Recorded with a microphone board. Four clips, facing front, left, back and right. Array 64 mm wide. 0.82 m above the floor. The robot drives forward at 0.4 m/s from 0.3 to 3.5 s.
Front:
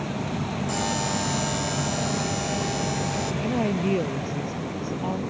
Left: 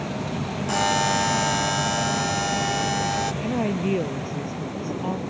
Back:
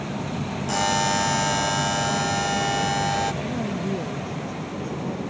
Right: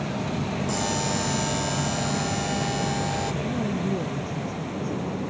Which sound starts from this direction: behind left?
A buzzer, at 0.7 s.